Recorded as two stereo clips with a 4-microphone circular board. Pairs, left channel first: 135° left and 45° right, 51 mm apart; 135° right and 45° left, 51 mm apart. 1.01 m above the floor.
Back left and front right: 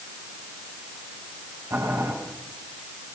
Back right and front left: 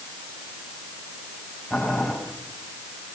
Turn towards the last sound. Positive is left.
turn(degrees=-40)